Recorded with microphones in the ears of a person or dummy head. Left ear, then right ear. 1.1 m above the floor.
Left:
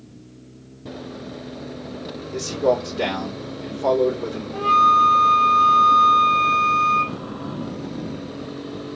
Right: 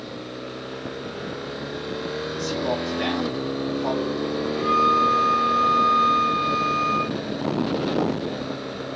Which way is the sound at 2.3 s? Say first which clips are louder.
Left 8 dB; 85° left.